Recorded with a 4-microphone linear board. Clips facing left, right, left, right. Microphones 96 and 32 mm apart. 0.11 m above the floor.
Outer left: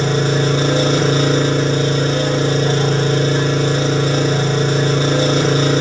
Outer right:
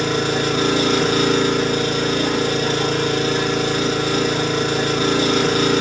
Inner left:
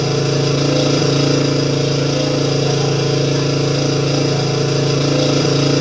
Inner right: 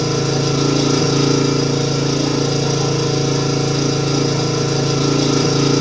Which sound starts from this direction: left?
An engine running, at 0.0 s.